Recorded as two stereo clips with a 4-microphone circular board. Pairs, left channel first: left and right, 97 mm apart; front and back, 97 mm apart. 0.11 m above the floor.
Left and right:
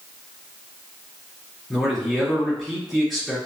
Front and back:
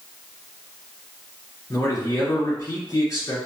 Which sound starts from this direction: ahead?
A man speaking, at 1.7 s.